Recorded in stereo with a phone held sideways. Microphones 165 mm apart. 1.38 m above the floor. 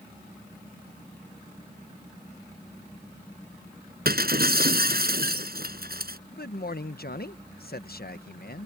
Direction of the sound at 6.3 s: 70° left (ahead or behind).